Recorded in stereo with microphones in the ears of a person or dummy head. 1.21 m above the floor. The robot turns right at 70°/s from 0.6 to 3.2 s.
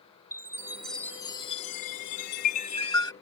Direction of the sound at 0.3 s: 20° right.